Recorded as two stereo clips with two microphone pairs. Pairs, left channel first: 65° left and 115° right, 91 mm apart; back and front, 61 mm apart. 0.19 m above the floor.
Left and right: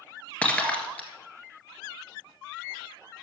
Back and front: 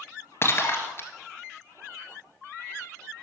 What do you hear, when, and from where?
0.4 s breaking glass: 135° left, 1.6 m